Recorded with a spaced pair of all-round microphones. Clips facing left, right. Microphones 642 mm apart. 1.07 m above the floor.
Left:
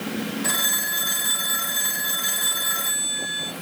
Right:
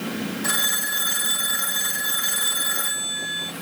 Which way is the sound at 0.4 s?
40° right (ahead or behind).